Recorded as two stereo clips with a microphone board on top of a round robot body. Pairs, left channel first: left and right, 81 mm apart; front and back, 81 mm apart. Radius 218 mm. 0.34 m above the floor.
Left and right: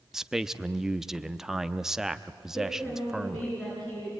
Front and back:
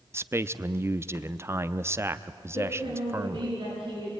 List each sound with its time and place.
0.1 s a man speaking: 170° right, 1.0 m
2.5 s a woman speaking: 150° left, 8 m